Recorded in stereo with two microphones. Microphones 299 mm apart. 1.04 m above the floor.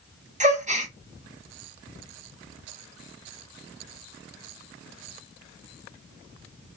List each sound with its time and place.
0.4 s a gasp: 25° right (ahead or behind), 0.7 m